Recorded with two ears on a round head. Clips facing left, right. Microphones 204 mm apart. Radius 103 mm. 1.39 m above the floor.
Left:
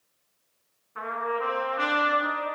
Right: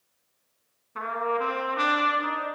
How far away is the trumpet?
About 3.5 m.